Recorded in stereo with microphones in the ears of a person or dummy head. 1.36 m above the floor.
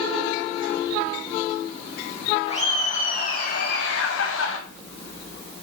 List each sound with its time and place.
2.5 s laughter: 35° left (ahead or behind), 4 m; by 4.6 s 85° left, 2 m